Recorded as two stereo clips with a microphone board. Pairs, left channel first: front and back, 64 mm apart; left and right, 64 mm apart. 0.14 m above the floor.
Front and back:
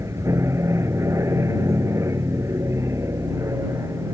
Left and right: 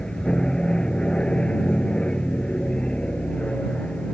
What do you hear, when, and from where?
0.0 s an aircraft: 160° left; by 4.1 s 155° left